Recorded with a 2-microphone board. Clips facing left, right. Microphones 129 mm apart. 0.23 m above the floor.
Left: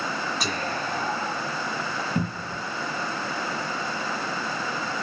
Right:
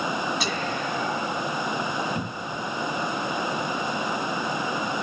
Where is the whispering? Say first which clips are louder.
Right 1 dB; 45° left (ahead or behind), 1.6 m.